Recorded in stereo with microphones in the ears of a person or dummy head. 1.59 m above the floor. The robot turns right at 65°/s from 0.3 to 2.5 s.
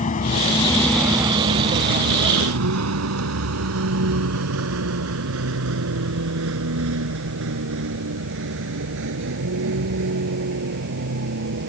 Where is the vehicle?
40° left (ahead or behind); by 11.7 s 55° right (ahead or behind).